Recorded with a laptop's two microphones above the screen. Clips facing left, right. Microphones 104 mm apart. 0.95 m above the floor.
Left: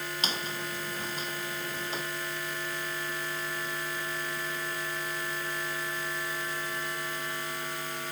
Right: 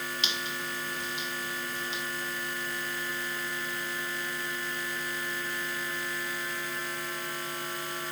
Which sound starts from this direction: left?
A squeak, at 0.2 s.